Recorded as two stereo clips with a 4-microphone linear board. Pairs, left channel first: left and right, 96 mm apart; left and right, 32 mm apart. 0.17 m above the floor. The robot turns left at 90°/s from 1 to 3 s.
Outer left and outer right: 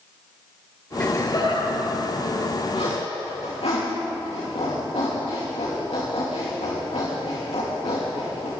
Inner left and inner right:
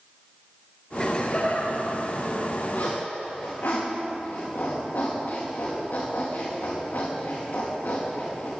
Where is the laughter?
20° left (ahead or behind), 3 m; by 2.6 s 10° left (ahead or behind), 3 m.